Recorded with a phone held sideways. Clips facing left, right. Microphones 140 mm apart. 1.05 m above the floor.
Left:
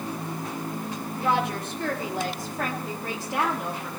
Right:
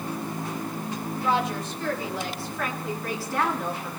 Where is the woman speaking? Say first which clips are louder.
Left 1 dB; 65° left (ahead or behind), 4 m; by 3.9 s 5° right (ahead or behind), 2.5 m.